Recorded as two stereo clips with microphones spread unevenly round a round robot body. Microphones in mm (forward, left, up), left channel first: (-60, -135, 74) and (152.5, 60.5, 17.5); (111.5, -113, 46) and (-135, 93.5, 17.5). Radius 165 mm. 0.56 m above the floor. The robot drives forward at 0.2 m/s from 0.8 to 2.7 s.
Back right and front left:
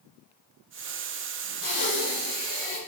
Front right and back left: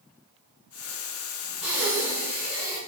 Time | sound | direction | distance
1.6 | breathing | 135° right | 1.4 m